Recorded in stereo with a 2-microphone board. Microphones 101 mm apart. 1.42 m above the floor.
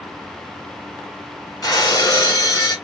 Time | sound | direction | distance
1.6 | breaking glass | 35° left (ahead or behind) | 1.7 m